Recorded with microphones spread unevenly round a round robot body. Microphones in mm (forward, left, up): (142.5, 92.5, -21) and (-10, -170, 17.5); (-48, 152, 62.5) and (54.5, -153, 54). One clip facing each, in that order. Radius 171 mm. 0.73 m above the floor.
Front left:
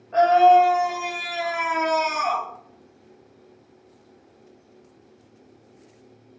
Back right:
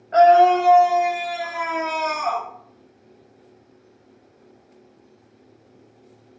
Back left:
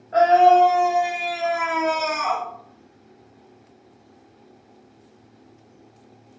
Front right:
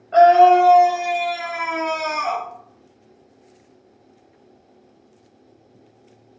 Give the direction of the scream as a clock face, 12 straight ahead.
3 o'clock.